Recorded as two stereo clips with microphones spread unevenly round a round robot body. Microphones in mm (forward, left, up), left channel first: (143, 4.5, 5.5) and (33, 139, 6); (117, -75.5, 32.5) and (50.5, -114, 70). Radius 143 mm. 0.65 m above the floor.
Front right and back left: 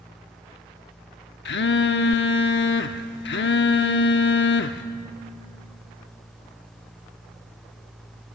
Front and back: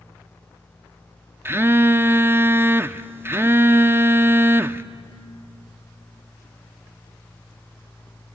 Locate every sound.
1.4 s a phone buzzing: 75° right, 0.9 m